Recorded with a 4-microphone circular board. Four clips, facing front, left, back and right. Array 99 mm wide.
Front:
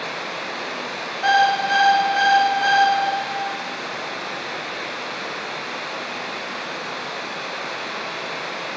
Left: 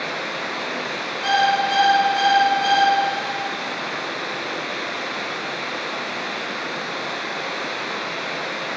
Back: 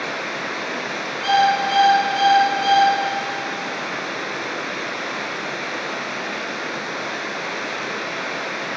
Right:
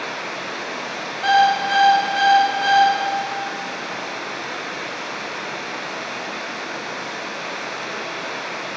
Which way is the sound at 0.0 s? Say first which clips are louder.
Left 1 dB, back 2 dB; 155° left.